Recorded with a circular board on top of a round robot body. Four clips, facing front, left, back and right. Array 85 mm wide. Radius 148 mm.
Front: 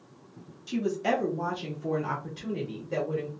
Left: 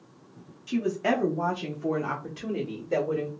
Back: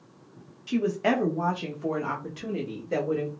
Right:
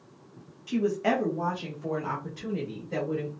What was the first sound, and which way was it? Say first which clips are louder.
A woman speaking: even, back 3 dB; 175° right.